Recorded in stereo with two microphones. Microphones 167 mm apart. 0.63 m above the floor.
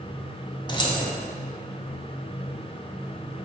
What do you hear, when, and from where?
0.7 s keys jangling: 30° left (ahead or behind), 0.5 m